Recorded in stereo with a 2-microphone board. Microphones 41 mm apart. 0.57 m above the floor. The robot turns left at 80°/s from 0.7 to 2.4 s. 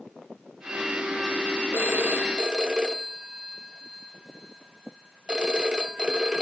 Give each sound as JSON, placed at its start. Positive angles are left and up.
{"t": 1.7, "sound": "a phone ringing", "azimuth_deg": -95, "distance_m": 0.9}